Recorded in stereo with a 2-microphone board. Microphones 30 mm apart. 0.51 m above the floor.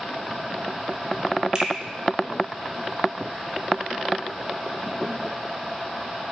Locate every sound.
1.6 s a finger snap: 25° right (ahead or behind), 0.7 m